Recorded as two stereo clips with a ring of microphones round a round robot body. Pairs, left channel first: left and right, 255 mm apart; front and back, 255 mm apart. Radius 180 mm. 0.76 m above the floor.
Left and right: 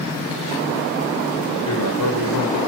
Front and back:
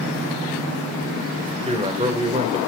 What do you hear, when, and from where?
1.6 s a man speaking: 115° left, 2.5 m